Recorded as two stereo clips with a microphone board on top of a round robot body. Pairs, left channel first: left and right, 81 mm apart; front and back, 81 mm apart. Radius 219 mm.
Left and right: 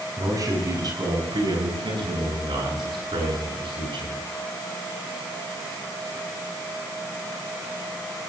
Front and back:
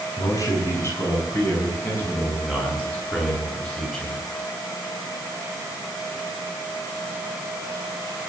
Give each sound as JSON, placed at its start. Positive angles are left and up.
{"t": 0.2, "sound": "a man speaking", "azimuth_deg": -45, "distance_m": 5.5}